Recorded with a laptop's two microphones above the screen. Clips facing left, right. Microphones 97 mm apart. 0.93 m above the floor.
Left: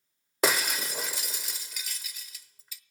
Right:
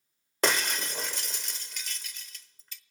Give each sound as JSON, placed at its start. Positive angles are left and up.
{"t": 0.4, "sound": "breaking glass", "side_deg": 10, "distance_m": 0.9}